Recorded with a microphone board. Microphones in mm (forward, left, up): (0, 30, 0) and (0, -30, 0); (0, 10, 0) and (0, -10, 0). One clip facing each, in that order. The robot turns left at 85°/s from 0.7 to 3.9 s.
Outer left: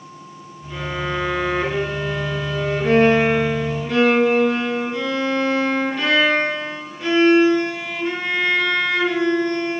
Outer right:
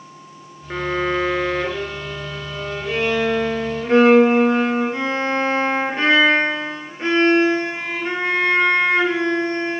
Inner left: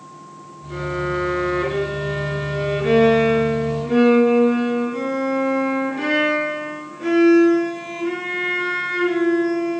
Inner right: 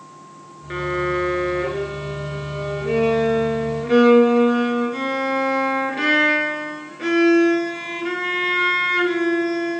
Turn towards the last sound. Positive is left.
turn(degrees=-35)